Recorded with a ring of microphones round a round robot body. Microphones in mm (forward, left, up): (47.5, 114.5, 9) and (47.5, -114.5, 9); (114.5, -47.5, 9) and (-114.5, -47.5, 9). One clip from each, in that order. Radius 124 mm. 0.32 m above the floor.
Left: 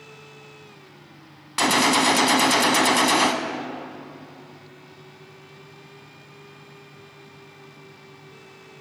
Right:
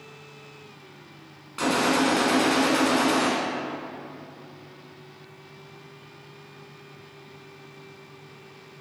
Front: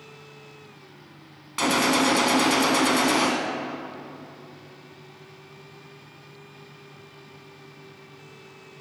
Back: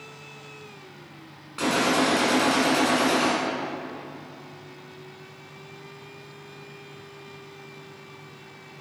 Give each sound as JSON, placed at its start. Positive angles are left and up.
{"t": 1.6, "sound": "a gunshot", "azimuth_deg": 65, "distance_m": 0.7}